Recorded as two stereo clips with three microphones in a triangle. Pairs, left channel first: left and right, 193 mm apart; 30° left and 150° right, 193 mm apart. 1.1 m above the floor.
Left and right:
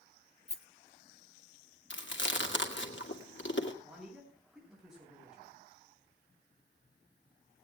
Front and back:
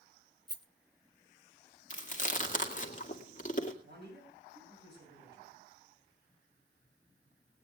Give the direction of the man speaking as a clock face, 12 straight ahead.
6 o'clock.